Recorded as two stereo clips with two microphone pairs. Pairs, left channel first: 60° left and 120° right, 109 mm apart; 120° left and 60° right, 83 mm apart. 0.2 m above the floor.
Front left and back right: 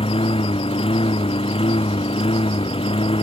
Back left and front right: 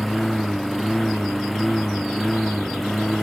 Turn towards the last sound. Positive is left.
turn(degrees=30)